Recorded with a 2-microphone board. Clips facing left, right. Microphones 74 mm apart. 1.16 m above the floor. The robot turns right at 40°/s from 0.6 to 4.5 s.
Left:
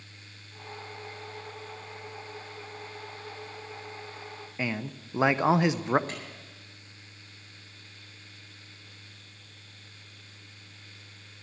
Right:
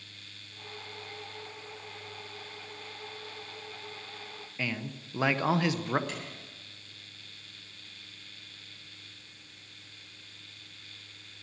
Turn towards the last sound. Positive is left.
turn(degrees=40)  # may be behind; listen again after turning